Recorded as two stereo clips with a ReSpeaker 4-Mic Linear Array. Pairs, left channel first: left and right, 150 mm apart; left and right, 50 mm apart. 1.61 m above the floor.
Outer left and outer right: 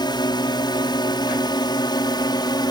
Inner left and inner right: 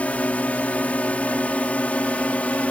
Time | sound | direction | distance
0.0 | a drone | 30° left (ahead or behind) | ?